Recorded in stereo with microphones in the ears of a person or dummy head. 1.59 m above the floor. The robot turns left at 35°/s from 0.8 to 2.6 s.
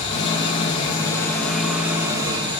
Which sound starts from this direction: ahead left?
An engine running, at 0.0 s.